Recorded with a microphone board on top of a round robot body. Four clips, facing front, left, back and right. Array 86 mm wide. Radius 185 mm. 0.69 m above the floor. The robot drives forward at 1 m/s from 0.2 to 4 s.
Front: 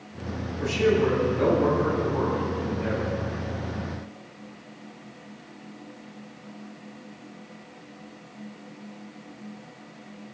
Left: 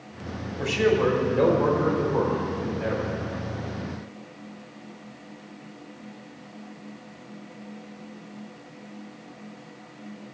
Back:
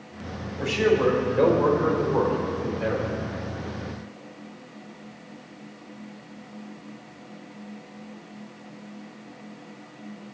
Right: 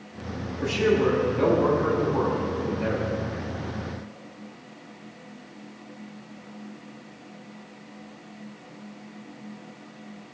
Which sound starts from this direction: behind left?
A man speaking, at 0.6 s.